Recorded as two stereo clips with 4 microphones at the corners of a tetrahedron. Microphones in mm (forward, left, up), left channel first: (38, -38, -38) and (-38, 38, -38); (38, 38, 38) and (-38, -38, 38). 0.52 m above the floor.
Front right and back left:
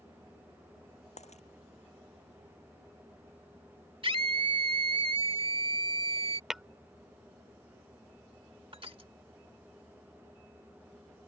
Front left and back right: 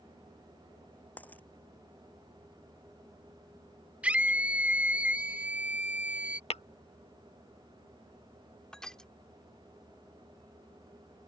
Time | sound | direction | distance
1.2 | a dropped coin | 30° right | ?
4.0 | a scream | 150° left | ?
6.5 | tapping | 50° left | ?
8.7 | crushing | 125° left | ?